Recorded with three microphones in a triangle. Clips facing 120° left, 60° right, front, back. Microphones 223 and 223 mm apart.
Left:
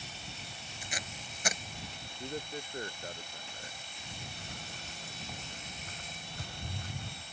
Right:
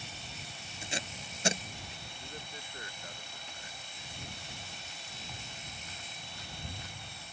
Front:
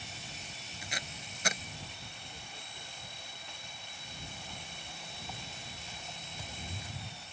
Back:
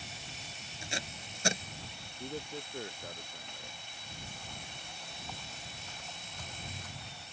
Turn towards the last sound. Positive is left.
turn(degrees=80)